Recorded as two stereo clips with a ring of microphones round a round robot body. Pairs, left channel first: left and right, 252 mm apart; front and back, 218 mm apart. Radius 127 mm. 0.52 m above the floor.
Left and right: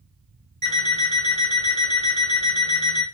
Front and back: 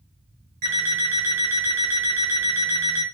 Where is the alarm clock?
155° right, 1.2 m.